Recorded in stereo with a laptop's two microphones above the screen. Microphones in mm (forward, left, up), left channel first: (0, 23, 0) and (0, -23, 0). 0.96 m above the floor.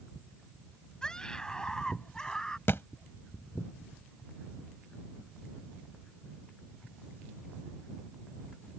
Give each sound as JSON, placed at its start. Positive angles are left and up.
{"t": 1.0, "sound": "a scream", "side_deg": 15}
{"t": 2.7, "sound": "a thud", "side_deg": 55}